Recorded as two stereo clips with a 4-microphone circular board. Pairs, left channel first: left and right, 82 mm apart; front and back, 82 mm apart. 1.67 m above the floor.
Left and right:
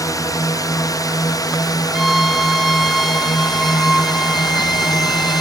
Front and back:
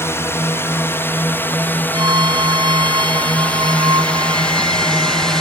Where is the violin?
175° right.